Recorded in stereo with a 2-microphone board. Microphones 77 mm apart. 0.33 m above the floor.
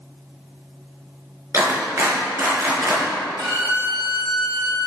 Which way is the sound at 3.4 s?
45° right (ahead or behind).